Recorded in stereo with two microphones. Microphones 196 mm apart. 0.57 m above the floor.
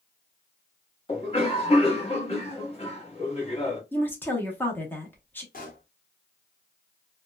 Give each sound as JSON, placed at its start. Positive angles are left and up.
{"t": 1.1, "sound": "a cough", "side_deg": 30, "distance_m": 1.1}
{"t": 3.9, "sound": "a woman speaking", "side_deg": 10, "distance_m": 0.7}
{"t": 5.5, "sound": "a pop", "side_deg": 45, "distance_m": 0.8}